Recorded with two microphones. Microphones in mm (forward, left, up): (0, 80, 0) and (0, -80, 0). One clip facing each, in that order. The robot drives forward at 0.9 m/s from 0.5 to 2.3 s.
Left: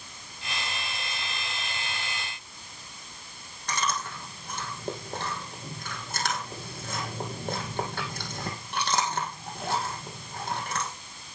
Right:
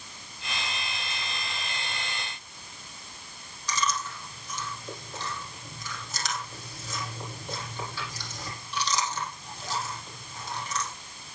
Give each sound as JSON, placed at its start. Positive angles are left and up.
{"t": 3.7, "sound": "chewing", "side_deg": 55, "distance_m": 4.5}